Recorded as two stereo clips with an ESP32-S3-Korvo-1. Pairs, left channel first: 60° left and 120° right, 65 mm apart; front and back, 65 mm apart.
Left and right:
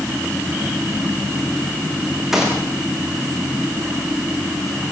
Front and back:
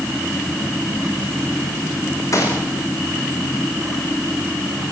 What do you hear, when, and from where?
2.3 s a gunshot: 35° right, 8 m